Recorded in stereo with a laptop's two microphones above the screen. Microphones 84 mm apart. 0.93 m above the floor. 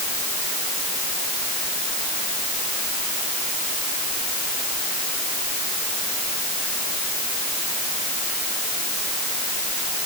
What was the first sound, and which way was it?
Only background noise.